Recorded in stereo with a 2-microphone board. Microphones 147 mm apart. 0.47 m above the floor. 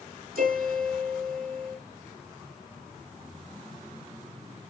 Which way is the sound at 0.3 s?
85° right.